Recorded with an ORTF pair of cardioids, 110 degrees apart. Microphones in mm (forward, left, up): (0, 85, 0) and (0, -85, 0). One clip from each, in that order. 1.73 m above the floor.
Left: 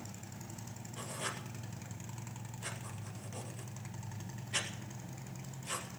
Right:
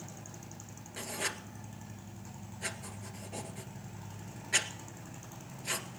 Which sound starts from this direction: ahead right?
Writing, at 1.0 s.